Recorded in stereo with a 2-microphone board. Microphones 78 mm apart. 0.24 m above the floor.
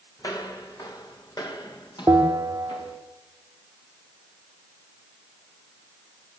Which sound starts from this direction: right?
A bell, at 2.1 s.